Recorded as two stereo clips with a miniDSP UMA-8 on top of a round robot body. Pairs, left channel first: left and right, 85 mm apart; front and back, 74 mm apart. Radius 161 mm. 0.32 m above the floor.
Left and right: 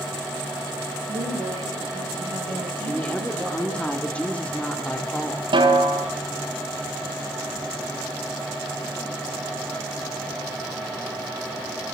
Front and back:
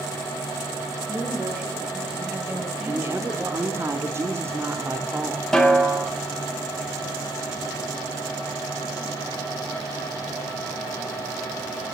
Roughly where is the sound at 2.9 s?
Behind left.